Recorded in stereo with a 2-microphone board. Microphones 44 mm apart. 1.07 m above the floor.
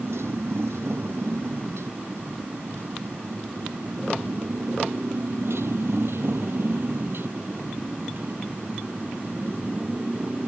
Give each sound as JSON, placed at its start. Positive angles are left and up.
{"t": 0.0, "sound": "a motorcycle", "side_deg": -75}